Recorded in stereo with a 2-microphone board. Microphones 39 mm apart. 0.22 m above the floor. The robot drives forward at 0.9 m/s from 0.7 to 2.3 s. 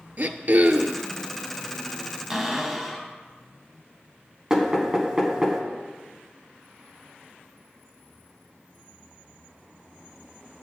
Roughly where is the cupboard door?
Centre.